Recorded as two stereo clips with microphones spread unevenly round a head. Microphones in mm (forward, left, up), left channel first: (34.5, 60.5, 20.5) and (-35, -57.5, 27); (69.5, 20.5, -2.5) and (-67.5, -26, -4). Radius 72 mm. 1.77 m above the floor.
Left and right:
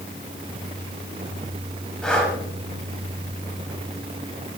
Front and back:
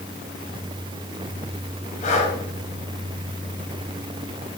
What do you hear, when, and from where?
2.0 s breathing: 25° right, 4 m